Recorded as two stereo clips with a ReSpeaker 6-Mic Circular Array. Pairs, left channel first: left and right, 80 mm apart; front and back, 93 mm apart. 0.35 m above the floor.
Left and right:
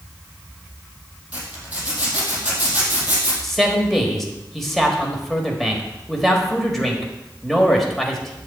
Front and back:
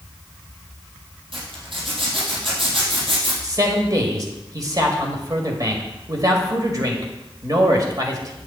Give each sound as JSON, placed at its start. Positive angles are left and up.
{"t": 1.3, "sound": "a zipper", "azimuth_deg": -160, "distance_m": 3.0}
{"t": 3.4, "sound": "a man speaking", "azimuth_deg": 175, "distance_m": 1.4}